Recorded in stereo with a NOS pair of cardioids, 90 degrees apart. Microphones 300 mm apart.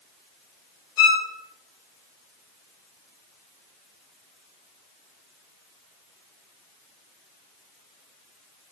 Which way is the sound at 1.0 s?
65° left.